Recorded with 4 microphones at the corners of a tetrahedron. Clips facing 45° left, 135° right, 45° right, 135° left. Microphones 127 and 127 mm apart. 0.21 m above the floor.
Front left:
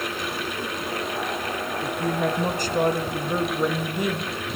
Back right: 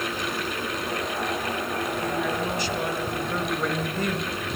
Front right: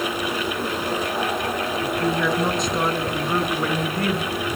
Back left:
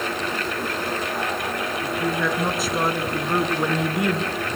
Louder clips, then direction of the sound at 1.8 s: Front left 4 dB, front right 2 dB; 40° left.